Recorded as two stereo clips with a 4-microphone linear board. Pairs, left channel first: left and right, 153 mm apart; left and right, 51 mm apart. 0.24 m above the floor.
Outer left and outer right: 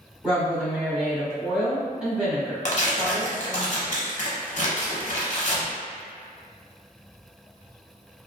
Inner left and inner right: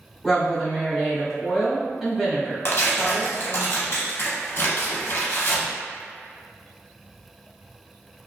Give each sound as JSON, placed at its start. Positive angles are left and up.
{"t": 0.2, "sound": "a woman speaking", "side_deg": -5, "distance_m": 1.1}
{"t": 2.6, "sound": "tearing paper", "side_deg": 50, "distance_m": 0.7}